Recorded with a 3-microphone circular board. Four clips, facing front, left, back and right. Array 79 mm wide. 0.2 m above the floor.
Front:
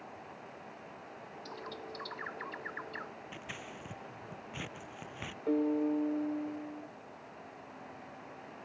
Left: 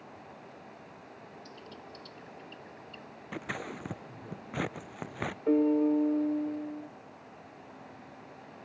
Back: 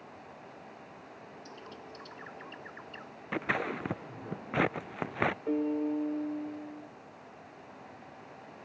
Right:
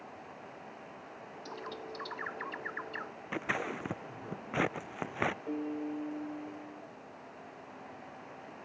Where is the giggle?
I don't hear a giggle.